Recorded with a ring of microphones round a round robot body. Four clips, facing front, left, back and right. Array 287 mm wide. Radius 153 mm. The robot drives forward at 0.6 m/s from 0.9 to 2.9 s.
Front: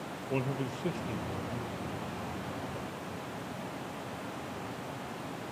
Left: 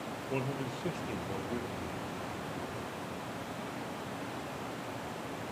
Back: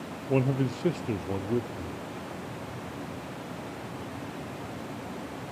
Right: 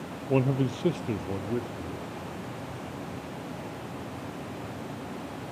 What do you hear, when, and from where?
0.3 s a man speaking: 125° right, 0.6 m; by 2.0 s 160° right, 1.1 m